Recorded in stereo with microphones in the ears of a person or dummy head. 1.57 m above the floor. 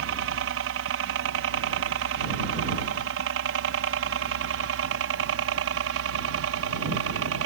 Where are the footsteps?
No footsteps in this recording.